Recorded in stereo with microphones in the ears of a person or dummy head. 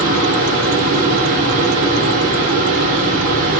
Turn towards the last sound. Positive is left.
turn(degrees=-55)  # may be behind; listen again after turning